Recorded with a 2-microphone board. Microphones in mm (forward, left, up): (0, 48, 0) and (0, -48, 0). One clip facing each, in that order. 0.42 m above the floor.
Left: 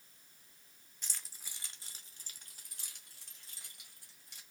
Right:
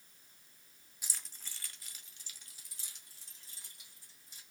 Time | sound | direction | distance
1.0 | keys jangling | 10° right (ahead or behind) | 0.7 m